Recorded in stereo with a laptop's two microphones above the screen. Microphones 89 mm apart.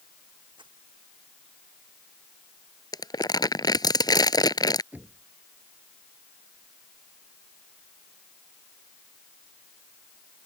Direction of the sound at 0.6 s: 60° right (ahead or behind).